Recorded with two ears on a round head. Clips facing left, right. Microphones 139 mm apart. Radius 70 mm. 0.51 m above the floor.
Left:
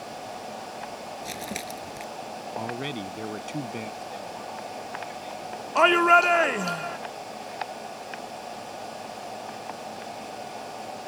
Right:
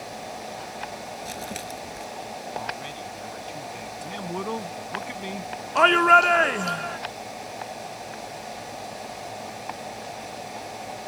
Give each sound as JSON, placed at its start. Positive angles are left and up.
{"t": 1.2, "sound": "crumpling", "side_deg": 10}
{"t": 2.6, "sound": "a man speaking", "side_deg": 60}
{"t": 4.0, "sound": "a man speaking", "side_deg": -80}
{"t": 5.8, "sound": "a shout", "side_deg": 5}